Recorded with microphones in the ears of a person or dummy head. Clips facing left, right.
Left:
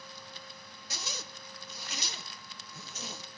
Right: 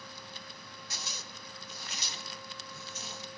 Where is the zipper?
60° left (ahead or behind), 1.2 m.